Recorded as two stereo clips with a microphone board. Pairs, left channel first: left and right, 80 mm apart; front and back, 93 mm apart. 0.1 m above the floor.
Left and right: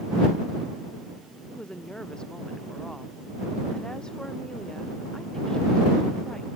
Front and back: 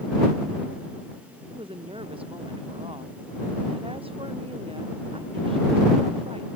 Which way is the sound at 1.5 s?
170° left.